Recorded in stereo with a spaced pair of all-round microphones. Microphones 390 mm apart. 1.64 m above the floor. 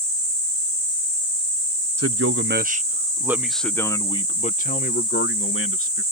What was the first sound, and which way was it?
A man speaking, 35° right (ahead or behind).